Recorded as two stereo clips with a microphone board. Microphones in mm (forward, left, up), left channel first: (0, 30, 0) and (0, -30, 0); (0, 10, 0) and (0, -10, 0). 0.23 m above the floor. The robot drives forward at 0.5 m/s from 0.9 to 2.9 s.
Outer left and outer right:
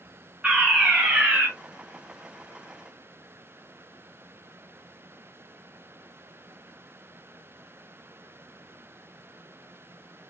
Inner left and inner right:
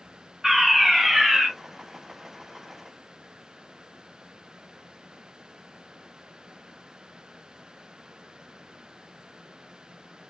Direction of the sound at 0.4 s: 10° right (ahead or behind).